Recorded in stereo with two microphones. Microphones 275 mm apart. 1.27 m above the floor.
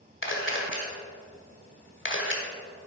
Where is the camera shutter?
45° left (ahead or behind), 1.8 m.